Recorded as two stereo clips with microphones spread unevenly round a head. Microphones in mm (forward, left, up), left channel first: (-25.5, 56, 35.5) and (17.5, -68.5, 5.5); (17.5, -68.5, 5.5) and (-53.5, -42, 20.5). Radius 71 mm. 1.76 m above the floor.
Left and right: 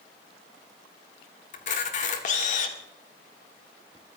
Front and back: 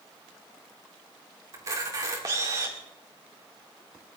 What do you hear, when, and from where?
1.5 s a camera shutter: 110° left, 2 m